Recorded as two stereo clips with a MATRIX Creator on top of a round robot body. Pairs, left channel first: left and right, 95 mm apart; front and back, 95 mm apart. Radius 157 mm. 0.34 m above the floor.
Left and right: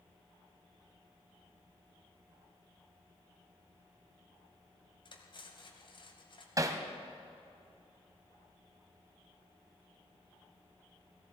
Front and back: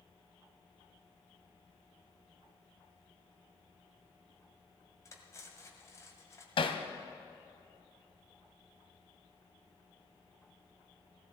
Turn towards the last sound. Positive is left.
turn(degrees=-35)